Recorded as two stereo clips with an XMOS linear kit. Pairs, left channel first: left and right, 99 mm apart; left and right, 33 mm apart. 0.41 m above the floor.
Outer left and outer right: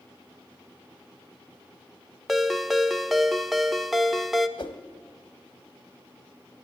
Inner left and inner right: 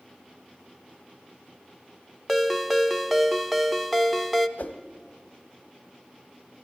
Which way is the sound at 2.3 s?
Centre (ahead or behind).